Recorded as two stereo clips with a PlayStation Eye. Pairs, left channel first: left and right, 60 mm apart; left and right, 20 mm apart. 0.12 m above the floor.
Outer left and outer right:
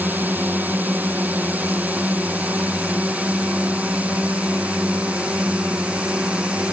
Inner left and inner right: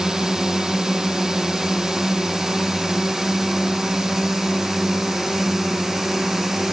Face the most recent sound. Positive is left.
turn(degrees=-25)  # may be behind; listen again after turning